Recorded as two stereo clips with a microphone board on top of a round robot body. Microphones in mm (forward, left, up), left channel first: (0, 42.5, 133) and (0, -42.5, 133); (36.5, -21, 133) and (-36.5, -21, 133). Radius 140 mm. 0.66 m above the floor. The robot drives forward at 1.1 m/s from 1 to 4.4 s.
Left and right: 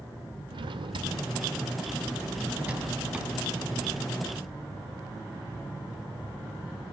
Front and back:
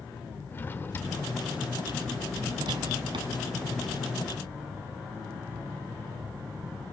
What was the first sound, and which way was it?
A drawer, 60° right.